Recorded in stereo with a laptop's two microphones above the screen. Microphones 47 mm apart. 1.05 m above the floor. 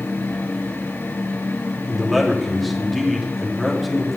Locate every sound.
0.0 s a fan: 60° left (ahead or behind), 3 m
1.9 s a man speaking: centre (ahead or behind), 3 m